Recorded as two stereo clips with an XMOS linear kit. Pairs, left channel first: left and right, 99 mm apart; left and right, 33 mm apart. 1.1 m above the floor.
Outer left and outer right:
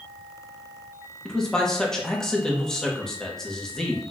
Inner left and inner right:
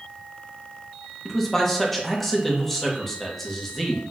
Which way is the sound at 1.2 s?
5° left (ahead or behind).